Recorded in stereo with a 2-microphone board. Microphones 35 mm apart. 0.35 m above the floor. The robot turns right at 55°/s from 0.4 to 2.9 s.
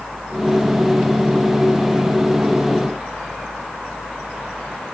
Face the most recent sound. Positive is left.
No sound to turn to.